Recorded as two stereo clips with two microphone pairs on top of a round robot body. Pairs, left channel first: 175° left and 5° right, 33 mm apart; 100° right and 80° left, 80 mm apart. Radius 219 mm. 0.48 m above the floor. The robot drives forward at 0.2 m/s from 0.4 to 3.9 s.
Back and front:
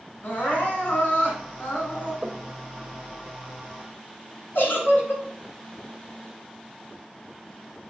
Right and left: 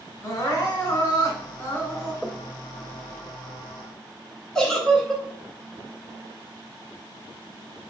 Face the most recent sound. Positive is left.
turn(degrees=175)